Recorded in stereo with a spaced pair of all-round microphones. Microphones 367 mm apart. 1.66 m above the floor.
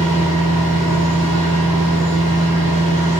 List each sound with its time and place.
0.0 s a machine running: 60° right (ahead or behind), 3 m